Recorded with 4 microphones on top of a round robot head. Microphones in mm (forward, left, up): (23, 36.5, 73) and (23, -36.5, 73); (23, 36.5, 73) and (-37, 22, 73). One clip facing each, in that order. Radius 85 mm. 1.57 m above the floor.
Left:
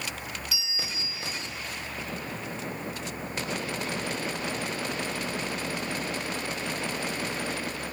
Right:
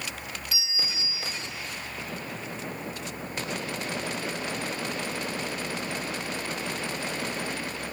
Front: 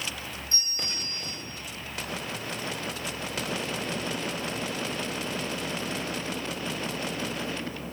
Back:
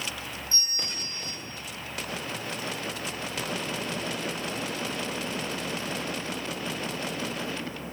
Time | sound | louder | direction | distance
0.5 | a bell | right 1 dB, even | 35° right | 9 m